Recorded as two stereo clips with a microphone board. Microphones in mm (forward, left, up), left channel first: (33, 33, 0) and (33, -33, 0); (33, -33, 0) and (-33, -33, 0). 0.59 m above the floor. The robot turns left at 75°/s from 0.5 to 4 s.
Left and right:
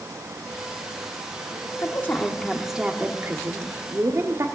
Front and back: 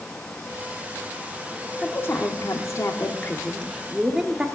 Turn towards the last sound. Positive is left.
turn(degrees=-110)